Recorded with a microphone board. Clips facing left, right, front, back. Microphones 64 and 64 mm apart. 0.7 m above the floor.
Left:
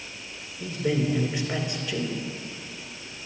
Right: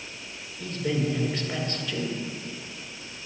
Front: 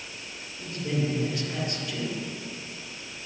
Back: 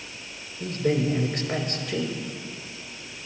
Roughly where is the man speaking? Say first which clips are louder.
Left 2 dB, back 5 dB; behind.